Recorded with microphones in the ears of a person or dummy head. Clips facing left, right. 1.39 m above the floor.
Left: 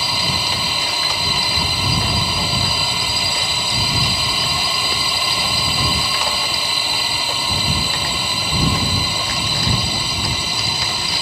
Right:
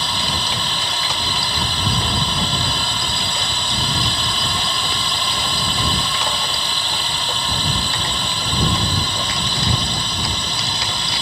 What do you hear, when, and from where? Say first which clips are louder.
0.0 s a drone: left 1 dB; 10° left (ahead or behind)